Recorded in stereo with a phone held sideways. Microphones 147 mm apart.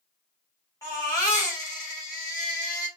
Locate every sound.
0.8 s a baby crying: 25° left (ahead or behind), 2.5 m